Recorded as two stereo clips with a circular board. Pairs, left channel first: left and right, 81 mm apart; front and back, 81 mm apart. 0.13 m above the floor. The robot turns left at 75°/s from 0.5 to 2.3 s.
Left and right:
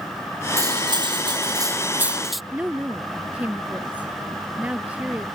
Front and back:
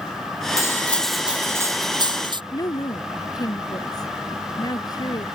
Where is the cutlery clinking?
50° right; by 2.4 s straight behind.